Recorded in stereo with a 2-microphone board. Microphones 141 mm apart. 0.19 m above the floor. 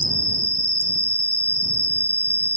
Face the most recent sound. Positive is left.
turn(degrees=-20)  # may be behind; listen again after turning